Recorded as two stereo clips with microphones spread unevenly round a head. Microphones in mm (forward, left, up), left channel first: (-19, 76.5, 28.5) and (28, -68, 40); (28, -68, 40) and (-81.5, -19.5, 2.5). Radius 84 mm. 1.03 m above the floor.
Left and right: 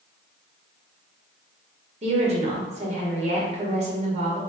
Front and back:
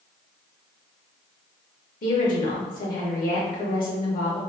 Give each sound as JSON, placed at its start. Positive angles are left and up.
{"t": 2.0, "sound": "a woman speaking", "azimuth_deg": -25, "distance_m": 1.1}